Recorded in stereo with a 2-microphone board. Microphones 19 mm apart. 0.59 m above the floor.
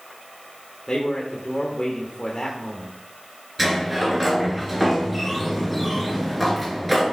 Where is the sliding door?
5° left (ahead or behind), 2.5 m.